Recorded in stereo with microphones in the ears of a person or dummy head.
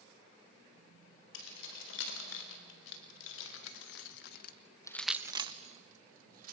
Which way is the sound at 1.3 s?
80° left.